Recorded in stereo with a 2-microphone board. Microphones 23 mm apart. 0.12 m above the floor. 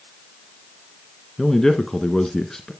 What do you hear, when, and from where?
1.4 s a man speaking: 25° left (ahead or behind), 1.2 m